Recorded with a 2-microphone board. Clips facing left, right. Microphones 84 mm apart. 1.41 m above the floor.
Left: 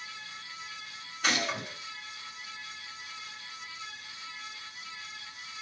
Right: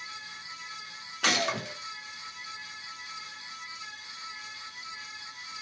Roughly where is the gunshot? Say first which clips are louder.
Right 2 dB; right.